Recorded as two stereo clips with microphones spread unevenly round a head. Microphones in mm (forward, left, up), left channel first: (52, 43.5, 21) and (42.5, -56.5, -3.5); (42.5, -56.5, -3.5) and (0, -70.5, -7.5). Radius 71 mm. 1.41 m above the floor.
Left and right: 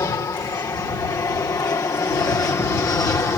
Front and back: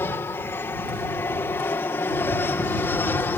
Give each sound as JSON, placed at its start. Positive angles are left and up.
{"t": 0.0, "sound": "an aircraft", "azimuth_deg": 30}